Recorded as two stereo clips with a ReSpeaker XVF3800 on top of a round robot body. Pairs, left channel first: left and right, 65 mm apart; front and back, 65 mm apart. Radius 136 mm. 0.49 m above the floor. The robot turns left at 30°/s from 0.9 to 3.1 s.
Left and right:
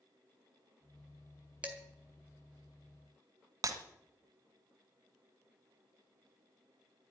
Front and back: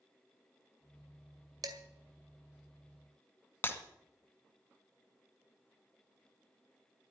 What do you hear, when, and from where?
1.6 s dishes clattering: 160° right, 2 m; by 1.8 s 165° right, 2 m
3.6 s breaking glass: 60° right, 1.7 m